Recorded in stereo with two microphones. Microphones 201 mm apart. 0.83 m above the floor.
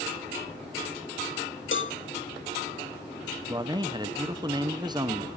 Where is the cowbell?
75° left (ahead or behind), 0.9 m.